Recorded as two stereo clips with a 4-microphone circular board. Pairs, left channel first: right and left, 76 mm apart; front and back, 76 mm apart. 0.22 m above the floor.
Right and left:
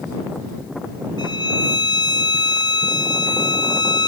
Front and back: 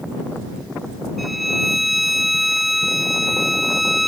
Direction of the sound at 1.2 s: 90° right.